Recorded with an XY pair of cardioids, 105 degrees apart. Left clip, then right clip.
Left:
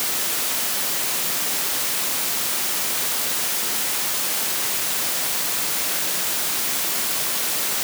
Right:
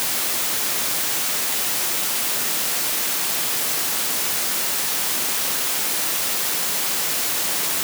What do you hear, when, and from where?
Only background noise.